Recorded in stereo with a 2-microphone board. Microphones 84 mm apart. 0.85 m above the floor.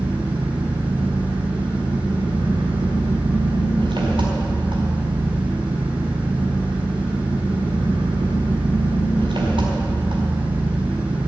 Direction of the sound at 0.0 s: 70° right (ahead or behind).